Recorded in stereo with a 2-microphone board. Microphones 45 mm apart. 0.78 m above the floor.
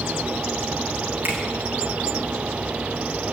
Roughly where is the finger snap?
Right.